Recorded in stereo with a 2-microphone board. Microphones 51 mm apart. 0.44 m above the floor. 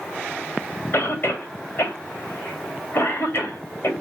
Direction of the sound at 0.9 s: 55° left (ahead or behind).